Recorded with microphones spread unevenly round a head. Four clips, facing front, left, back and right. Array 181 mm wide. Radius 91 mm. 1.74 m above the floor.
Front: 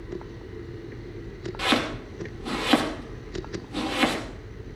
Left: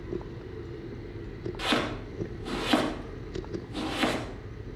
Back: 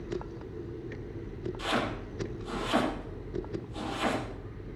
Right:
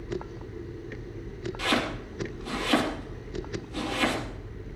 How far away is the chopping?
About 3 m.